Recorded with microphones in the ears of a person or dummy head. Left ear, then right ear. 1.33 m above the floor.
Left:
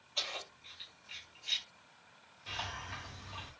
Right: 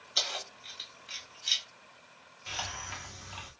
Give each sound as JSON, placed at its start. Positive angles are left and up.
{"t": 0.2, "sound": "keys jangling", "side_deg": -70, "distance_m": 1.1}
{"t": 2.5, "sound": "a hiss", "side_deg": -25, "distance_m": 0.8}